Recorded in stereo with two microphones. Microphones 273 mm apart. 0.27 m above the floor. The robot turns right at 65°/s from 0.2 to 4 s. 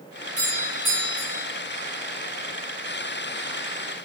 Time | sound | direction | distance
0.4 | a doorbell | 25° right | 4.5 m